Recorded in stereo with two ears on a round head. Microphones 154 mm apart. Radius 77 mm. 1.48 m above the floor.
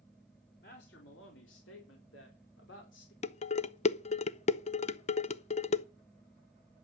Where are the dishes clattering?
40° left (ahead or behind), 0.5 m.